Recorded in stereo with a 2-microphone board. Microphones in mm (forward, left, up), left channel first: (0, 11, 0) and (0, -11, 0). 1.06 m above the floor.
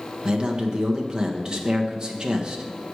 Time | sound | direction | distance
0.2 | a man speaking | 35° right (ahead or behind) | 1.2 m